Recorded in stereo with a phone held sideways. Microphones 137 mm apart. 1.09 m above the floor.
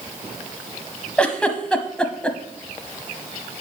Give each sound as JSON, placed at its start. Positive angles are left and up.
{"t": 1.2, "sound": "a giggle", "side_deg": 5, "distance_m": 1.1}